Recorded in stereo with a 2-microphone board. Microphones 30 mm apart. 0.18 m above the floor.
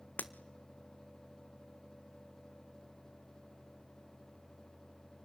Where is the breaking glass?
65° left (ahead or behind), 1.0 m.